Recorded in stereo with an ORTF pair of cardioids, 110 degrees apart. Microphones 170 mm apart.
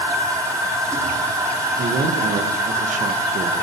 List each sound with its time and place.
0.0 s a machine running: 20° right, 4 m
1.8 s a man speaking: 45° right, 1.8 m